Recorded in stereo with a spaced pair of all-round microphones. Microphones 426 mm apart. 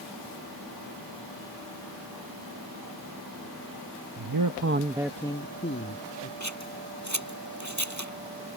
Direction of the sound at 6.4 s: 40° right (ahead or behind).